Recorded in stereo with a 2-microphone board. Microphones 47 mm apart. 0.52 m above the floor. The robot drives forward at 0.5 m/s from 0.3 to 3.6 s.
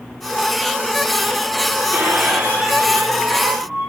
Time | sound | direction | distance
1.9 | a squeak | 50° right (ahead or behind) | 3 m